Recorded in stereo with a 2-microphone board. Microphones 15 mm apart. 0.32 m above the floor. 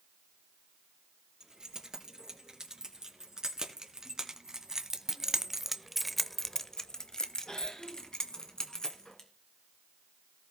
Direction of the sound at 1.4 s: 40° right (ahead or behind).